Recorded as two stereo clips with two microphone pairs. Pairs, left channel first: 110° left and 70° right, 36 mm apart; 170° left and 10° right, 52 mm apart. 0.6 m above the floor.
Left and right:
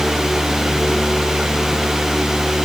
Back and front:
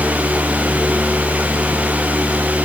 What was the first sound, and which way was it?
Only background noise.